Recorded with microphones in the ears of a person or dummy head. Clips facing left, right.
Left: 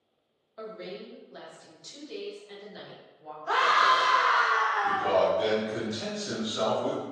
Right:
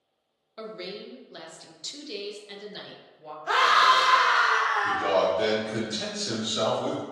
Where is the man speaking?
35° right (ahead or behind), 1.0 m.